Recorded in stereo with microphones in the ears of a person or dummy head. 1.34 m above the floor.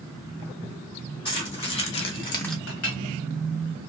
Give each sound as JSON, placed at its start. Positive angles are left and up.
{"t": 1.2, "sound": "keys jangling", "side_deg": 35, "distance_m": 1.8}
{"t": 2.7, "sound": "a clink", "side_deg": 75, "distance_m": 1.3}